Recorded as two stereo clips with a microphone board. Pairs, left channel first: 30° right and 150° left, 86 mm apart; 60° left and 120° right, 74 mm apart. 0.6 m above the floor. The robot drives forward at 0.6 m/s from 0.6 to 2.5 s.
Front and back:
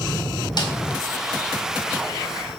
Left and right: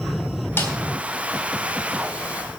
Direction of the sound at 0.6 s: Straight ahead.